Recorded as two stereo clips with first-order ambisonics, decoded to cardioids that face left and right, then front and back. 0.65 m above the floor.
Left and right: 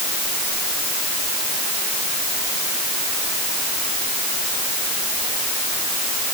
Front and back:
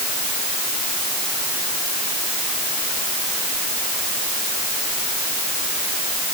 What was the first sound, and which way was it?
Only background noise.